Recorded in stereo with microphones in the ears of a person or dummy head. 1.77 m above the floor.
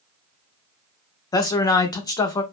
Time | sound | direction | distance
1.3 | a man speaking | 15° left (ahead or behind) | 0.5 m